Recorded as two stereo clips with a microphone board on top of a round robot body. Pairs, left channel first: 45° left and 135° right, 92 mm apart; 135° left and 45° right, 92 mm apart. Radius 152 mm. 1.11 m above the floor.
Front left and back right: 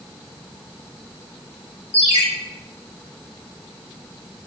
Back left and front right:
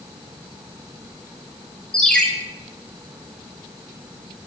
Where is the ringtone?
55° left, 3 m.